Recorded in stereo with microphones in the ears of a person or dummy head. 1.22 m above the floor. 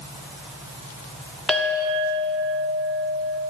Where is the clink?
10° left (ahead or behind), 1.2 m.